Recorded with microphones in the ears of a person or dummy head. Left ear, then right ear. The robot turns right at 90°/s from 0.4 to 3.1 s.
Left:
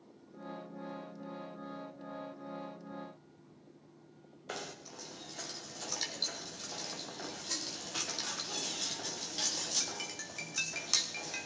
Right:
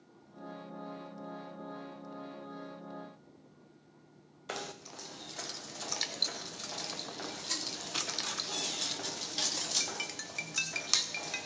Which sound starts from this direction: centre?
Knocking, at 4.5 s.